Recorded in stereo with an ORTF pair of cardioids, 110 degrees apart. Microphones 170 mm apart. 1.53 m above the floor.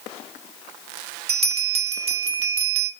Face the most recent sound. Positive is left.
turn(degrees=-40)